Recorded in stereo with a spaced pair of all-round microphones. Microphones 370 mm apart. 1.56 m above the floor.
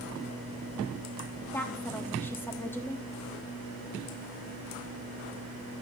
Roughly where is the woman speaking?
Centre.